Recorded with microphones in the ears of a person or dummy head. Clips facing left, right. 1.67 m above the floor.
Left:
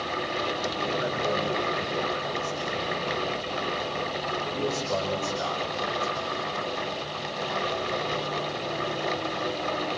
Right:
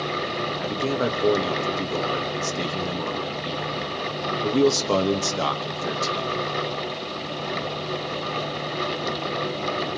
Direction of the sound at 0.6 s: 85° right.